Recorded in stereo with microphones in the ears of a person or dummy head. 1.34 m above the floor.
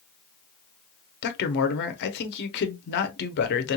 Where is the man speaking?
55° left (ahead or behind), 0.9 m.